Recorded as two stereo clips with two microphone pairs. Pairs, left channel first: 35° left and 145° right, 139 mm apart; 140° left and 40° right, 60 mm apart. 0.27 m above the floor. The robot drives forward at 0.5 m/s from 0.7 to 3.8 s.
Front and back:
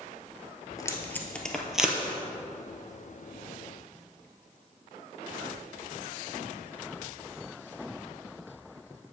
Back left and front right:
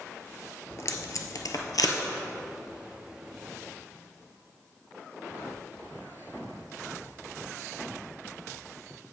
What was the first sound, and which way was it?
Tape being pulled, 95° left.